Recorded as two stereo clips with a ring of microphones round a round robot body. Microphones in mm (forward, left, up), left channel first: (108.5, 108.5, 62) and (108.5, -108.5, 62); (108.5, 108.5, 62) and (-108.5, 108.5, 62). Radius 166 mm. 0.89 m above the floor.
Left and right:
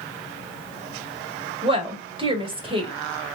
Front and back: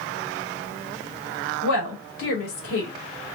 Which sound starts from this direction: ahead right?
A woman speaking, at 1.6 s.